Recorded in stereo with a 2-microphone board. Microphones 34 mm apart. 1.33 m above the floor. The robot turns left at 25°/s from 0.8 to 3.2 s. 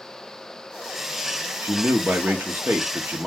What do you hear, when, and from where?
1.6 s a man speaking: 95° right, 0.6 m; by 3.3 s 135° right, 0.6 m